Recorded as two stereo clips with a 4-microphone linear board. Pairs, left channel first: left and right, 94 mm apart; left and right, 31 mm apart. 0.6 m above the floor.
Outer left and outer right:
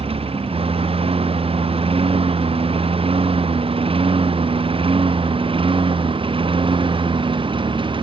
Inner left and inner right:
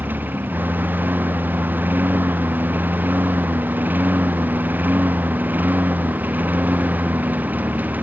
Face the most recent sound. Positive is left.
turn(degrees=-65)  # may be behind; listen again after turning